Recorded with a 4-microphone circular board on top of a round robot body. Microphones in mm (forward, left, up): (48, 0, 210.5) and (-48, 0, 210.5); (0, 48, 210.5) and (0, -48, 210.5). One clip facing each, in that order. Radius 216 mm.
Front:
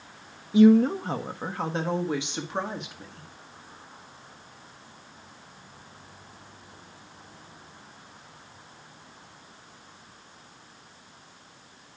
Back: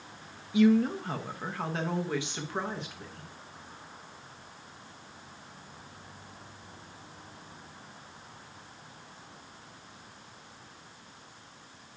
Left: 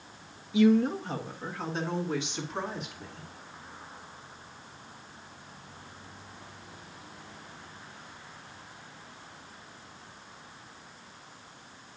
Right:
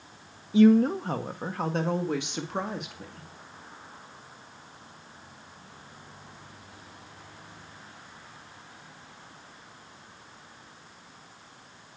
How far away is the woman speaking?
About 0.7 m.